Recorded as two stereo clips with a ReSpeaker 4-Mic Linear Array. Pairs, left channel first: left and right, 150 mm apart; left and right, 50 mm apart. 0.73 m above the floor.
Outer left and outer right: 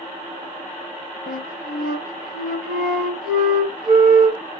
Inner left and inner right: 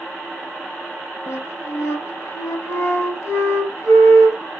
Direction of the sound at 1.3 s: 70° left (ahead or behind).